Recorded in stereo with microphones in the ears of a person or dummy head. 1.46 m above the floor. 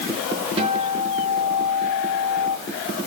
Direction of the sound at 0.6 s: 30° right (ahead or behind).